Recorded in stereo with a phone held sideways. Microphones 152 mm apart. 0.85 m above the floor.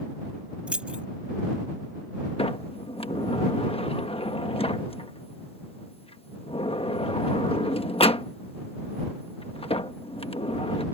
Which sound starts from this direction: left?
A sliding door, at 2.4 s.